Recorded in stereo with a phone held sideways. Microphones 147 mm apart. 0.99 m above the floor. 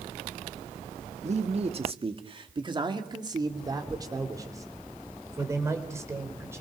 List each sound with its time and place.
1.2 s a man speaking: 50° right (ahead or behind), 1.6 m; by 6.6 s 15° right (ahead or behind), 4.5 m